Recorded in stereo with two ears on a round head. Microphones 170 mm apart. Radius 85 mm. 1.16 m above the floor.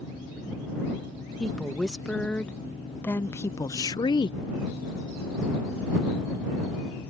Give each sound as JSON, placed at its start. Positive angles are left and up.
{"t": 1.4, "sound": "a woman speaking", "side_deg": 5}